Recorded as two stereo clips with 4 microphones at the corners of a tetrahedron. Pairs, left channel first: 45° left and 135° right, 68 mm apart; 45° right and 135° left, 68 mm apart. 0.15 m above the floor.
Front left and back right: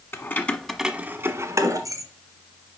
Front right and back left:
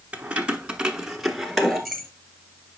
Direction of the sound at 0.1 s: 75° left.